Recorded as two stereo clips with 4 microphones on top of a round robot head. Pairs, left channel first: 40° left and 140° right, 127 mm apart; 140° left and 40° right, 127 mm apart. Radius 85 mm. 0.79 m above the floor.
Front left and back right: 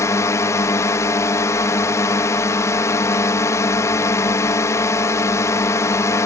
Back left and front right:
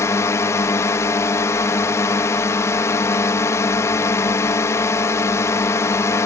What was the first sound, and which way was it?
A drone, 90° left.